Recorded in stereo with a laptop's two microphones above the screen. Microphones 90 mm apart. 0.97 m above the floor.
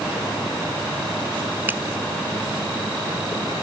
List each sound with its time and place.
1.7 s a finger snap: 20° right (ahead or behind)